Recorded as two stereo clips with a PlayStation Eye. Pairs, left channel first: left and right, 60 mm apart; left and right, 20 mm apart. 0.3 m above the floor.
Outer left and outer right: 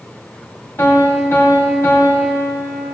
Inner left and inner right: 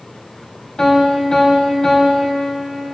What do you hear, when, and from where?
0.8 s a piano: 40° left (ahead or behind), 2.0 m